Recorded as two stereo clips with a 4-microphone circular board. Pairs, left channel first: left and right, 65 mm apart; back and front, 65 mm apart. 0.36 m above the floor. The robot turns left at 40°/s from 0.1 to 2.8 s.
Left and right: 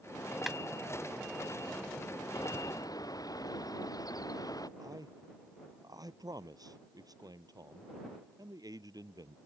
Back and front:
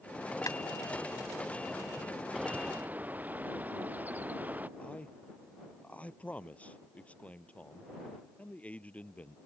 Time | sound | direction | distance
0.5 | a clap | 175° right | ?
2.3 | a bird | 85° left | ?
4.8 | a man speaking | 110° right | ?